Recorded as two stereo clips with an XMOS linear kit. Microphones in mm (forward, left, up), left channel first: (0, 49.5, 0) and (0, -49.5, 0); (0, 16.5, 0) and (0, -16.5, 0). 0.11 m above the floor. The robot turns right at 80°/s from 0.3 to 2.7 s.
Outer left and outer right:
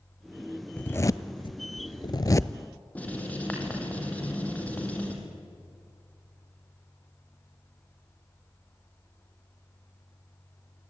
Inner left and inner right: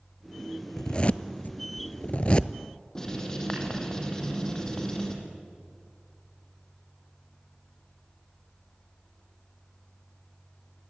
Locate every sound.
0.8 s a zipper: 10° left (ahead or behind), 0.6 m; by 2.6 s 15° left (ahead or behind), 0.6 m
3.0 s writing: 15° left (ahead or behind), 4 m